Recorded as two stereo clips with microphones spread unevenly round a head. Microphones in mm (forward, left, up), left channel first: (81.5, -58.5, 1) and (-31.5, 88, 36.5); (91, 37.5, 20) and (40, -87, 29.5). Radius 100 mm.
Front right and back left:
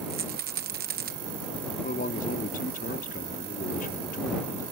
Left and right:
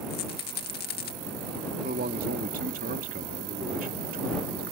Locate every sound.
0.1 s a rattle: 90° left
1.8 s a man speaking: 105° right